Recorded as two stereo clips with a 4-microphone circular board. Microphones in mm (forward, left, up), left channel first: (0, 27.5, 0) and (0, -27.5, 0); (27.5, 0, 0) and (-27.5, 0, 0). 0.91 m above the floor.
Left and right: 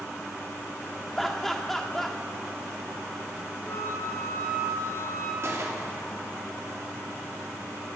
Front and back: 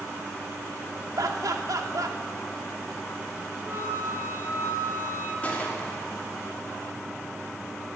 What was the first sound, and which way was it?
Laughter, 175° left.